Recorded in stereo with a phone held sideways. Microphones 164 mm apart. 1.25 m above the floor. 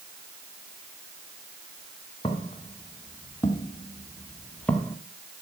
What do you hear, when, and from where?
2.2 s footsteps: 30° left (ahead or behind), 2.5 m; by 5.0 s centre (ahead or behind), 1.2 m